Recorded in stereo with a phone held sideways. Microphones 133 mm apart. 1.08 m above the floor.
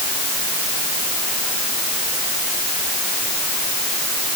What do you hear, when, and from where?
Only background noise.